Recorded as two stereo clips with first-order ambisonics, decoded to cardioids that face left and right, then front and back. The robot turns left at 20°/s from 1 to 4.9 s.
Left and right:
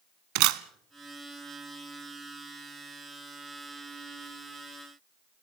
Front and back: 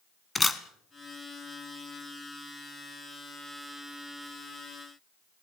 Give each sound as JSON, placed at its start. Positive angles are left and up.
{"t": 0.3, "sound": "a camera shutter", "azimuth_deg": -80, "distance_m": 1.1}